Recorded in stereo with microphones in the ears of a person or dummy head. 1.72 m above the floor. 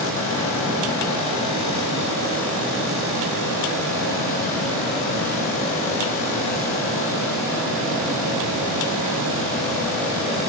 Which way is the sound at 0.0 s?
10° left (ahead or behind).